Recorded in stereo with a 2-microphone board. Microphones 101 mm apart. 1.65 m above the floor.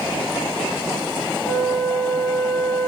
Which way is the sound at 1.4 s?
10° right (ahead or behind).